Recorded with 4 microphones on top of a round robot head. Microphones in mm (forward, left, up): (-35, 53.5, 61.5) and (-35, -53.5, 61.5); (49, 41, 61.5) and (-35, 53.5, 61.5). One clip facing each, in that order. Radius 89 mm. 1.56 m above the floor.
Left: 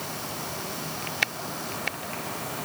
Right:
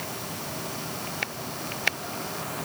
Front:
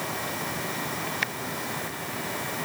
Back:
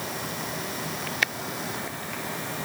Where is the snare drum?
I don't hear a snare drum.